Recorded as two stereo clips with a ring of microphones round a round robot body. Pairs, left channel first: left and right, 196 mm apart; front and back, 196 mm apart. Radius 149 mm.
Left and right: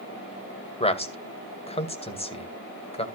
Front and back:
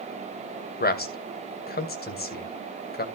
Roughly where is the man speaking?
Ahead left.